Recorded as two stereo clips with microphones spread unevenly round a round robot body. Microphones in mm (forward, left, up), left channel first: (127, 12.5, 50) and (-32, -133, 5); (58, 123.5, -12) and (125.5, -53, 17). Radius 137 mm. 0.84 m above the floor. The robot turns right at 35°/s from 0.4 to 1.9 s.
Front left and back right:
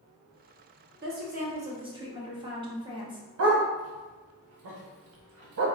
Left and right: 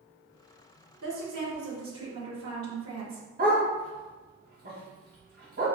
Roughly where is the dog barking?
Behind right.